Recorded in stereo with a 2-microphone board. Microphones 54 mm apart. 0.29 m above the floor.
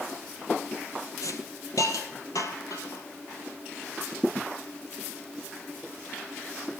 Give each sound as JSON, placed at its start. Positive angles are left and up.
{"t": 1.2, "sound": "a hiss", "side_deg": 80, "distance_m": 1.6}